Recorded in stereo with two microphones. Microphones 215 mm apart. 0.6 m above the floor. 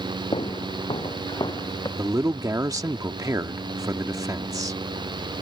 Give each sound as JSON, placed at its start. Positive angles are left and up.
{"t": 0.3, "sound": "footsteps", "side_deg": 25}
{"t": 2.0, "sound": "a man speaking", "side_deg": -15}